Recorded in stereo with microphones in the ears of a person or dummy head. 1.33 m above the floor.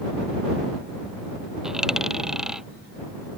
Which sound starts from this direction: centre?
A dropped coin, at 1.6 s.